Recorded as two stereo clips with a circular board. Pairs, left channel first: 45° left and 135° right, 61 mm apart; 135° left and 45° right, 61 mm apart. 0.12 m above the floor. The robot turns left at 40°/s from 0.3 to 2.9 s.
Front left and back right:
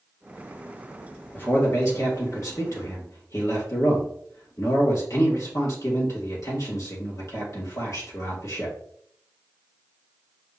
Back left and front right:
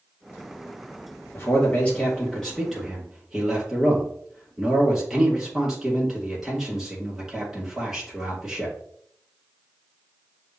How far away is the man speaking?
About 2.5 m.